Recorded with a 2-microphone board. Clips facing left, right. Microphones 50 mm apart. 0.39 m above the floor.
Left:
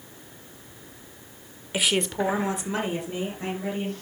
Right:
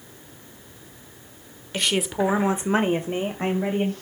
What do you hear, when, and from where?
1.7 s a woman speaking: 10° left (ahead or behind), 1.3 m; by 3.9 s 50° right (ahead or behind), 2.5 m